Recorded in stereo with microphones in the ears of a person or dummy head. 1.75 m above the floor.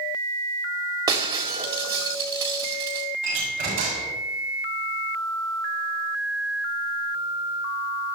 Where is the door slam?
45° right (ahead or behind), 7 m.